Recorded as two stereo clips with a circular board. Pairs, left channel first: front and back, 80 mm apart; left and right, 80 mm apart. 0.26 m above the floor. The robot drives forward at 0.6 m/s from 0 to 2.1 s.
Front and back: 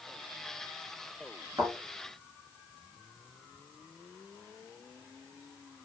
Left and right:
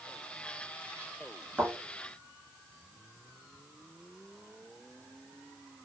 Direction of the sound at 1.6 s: 160° right.